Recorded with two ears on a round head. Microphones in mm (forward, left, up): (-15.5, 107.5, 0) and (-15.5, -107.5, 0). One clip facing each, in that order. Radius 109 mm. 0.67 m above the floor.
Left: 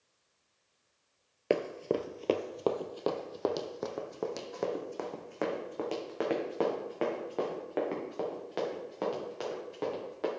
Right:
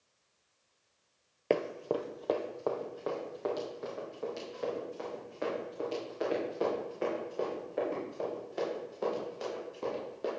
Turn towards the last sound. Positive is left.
turn(degrees=75)  # may be behind; listen again after turning